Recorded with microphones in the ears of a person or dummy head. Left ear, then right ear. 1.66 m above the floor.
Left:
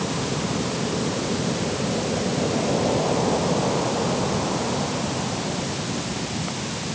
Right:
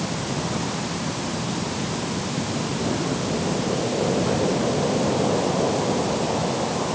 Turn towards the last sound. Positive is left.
No sound to turn to.